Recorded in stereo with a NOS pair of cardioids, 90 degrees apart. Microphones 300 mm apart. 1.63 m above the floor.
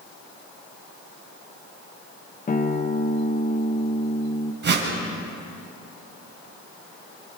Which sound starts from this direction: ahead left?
A guitar, at 2.5 s.